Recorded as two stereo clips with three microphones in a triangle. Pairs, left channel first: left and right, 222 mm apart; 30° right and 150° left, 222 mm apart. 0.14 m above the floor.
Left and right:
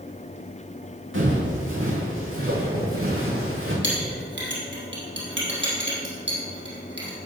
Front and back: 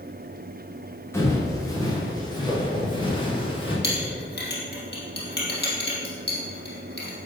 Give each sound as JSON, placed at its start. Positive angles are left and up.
{"t": 1.1, "sound": "footsteps", "azimuth_deg": -110, "distance_m": 4.0}
{"t": 3.8, "sound": "a clink", "azimuth_deg": -65, "distance_m": 3.5}